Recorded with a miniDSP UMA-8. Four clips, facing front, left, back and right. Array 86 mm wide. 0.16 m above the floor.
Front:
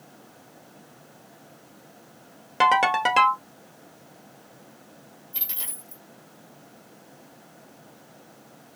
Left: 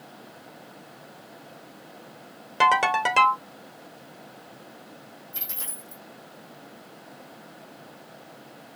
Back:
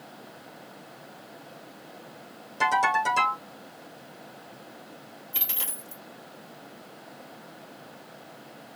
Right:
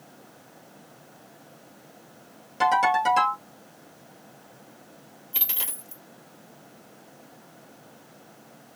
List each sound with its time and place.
2.6 s a ringtone: 35° left, 1.4 m
5.3 s a dropped coin: 115° right, 1.3 m